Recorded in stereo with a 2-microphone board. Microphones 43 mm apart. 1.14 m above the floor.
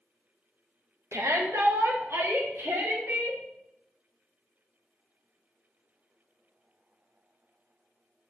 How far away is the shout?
About 1.2 m.